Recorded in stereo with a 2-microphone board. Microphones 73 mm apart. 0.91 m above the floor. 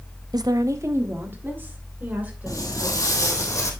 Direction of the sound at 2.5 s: 45° left (ahead or behind).